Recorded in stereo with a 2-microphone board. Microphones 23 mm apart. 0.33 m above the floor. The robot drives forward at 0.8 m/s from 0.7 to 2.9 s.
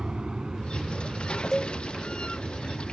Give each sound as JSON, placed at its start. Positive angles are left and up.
{"t": 0.0, "sound": "an aircraft", "side_deg": -45}
{"t": 1.5, "sound": "a cowbell", "side_deg": 15}